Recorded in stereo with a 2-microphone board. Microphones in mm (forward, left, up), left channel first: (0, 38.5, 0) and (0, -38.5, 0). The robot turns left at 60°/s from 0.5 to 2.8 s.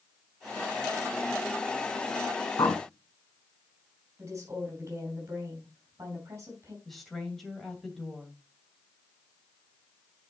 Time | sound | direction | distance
2.6 | a bird | 70° left (ahead or behind) | 1.0 m
4.2 | a woman speaking | 40° right (ahead or behind) | 3.5 m
6.8 | a woman speaking | 5° left (ahead or behind) | 2.5 m